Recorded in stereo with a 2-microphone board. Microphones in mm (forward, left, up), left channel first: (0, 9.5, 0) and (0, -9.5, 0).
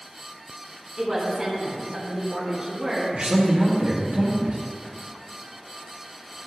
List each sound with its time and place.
1.0 s a woman speaking: 25° right (ahead or behind), 1.9 m
3.1 s a man speaking: 50° right (ahead or behind), 2 m